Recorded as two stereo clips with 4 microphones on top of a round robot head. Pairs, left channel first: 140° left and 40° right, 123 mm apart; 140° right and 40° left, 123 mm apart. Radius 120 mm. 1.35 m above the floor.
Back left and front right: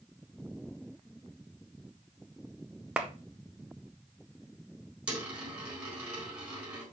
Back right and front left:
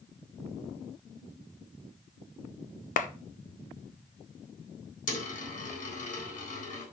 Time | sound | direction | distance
3.0 | a clap | 120° right | 0.8 m
5.1 | a dropped coin | 125° right | 4 m